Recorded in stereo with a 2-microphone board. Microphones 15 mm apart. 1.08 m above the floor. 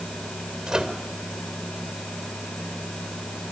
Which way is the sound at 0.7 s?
60° right (ahead or behind).